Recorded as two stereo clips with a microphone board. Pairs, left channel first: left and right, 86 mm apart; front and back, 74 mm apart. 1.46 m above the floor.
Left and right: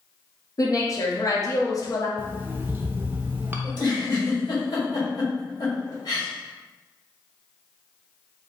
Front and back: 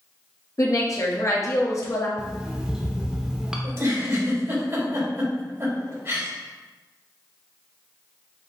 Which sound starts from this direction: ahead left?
A woman speaking, at 0.6 s.